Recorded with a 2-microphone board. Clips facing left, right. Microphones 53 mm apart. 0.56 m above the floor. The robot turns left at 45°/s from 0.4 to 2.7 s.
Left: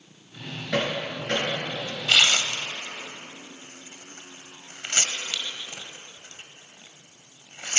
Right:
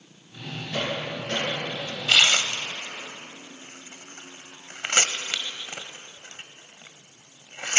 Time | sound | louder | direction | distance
0.7 | hammering | left 3 dB | 85° left | 6 m
2.1 | tearing paper | right 1 dB | 10° right (ahead or behind) | 0.8 m